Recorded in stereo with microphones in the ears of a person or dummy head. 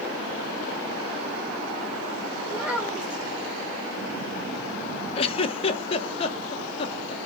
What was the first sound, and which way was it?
A child speaking, 5° right (ahead or behind).